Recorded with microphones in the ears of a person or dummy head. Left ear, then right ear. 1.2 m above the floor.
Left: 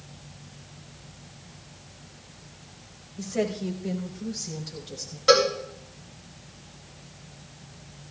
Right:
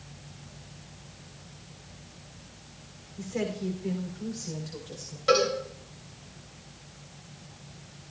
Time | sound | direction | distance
3.2 | a woman speaking | 10° right (ahead or behind) | 3 m
5.3 | a cowbell | 15° left (ahead or behind) | 3.5 m